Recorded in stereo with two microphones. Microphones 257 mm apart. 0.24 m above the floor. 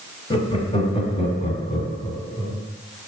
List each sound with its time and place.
0.3 s laughter: 20° left (ahead or behind), 1.5 m